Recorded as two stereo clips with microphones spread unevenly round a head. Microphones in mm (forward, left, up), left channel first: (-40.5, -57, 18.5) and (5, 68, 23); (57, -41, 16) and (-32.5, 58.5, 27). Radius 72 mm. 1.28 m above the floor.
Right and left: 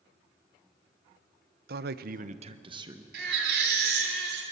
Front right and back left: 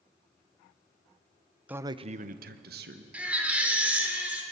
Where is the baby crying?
55° left, 3 m.